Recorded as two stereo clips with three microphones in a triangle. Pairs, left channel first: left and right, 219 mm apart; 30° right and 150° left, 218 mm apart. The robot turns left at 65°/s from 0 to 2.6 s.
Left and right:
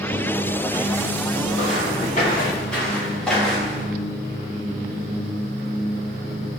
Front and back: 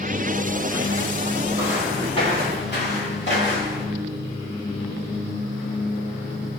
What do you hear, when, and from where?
1.6 s footsteps: 80° left, 3.5 m; by 3.9 s straight ahead, 5 m